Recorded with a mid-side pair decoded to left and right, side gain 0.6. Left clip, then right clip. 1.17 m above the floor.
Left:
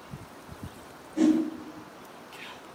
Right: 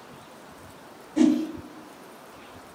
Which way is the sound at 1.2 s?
40° right.